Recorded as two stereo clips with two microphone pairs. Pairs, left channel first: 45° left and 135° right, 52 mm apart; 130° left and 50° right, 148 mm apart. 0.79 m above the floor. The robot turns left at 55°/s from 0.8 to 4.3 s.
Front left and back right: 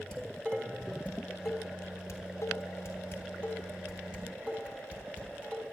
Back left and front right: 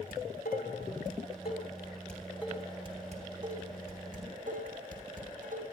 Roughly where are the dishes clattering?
Behind left.